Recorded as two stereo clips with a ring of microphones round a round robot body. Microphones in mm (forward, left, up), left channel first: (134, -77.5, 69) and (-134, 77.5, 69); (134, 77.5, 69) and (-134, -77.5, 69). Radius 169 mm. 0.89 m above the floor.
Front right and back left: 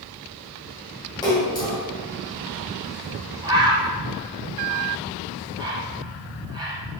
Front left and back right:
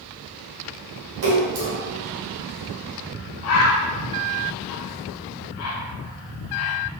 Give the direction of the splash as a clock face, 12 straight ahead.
4 o'clock.